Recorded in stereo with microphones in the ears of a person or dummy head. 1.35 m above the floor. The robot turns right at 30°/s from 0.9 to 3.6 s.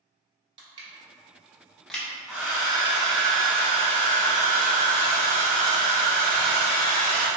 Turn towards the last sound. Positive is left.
turn(degrees=-135)